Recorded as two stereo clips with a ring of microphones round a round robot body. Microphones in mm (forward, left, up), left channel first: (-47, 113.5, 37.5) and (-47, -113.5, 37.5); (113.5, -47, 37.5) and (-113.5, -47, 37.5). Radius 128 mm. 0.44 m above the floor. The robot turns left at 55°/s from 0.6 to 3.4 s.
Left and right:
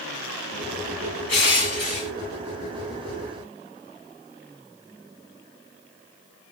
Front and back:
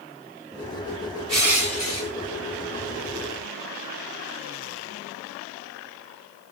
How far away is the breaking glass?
I don't hear breaking glass.